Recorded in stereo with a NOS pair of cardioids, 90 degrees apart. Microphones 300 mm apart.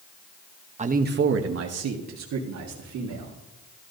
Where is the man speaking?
25° right, 0.9 m; by 3.4 s 75° right, 2 m.